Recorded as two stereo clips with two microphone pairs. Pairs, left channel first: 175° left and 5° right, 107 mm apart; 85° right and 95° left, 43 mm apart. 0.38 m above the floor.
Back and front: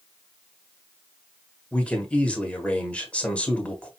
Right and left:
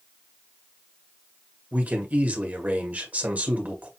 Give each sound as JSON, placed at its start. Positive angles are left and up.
{"t": 1.7, "sound": "a man speaking", "azimuth_deg": 105, "distance_m": 1.4}